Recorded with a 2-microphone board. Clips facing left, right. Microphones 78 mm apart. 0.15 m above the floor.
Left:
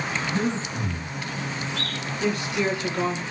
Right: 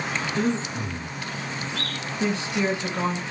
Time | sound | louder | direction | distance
0.3 | breathing | right 3 dB | 20° left (ahead or behind) | 1.7 m
2.2 | a woman speaking | even | 25° right (ahead or behind) | 1.1 m